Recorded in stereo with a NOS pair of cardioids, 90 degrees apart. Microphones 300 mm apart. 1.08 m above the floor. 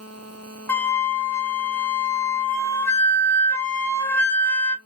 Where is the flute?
10° left, 0.7 m.